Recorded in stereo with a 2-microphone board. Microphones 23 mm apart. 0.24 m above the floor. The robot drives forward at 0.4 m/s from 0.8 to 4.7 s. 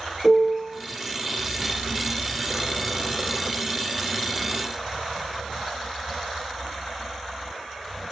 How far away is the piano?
About 2 m.